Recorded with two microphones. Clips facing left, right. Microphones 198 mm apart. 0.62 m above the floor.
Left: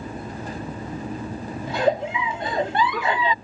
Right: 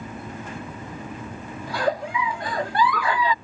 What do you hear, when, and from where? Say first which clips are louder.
1.7 s a giggle: left 3 dB; 20° left (ahead or behind)